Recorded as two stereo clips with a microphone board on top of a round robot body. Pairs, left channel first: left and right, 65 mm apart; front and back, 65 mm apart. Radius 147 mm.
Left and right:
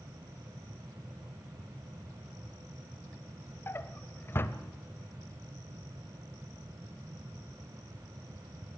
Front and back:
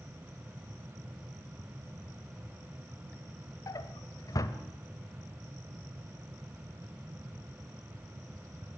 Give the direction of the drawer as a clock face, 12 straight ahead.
11 o'clock.